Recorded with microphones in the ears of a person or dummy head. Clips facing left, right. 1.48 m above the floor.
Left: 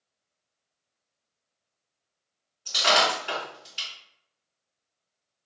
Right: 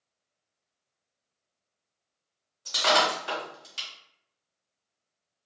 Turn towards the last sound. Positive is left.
turn(degrees=-50)  # may be behind; listen again after turning